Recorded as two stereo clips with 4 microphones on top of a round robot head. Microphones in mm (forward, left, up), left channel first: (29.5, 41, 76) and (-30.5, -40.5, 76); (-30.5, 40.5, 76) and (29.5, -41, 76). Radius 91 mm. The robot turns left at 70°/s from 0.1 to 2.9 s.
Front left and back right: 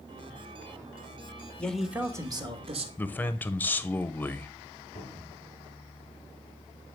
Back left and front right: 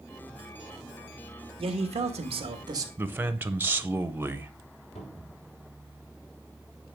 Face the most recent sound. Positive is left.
turn(degrees=105)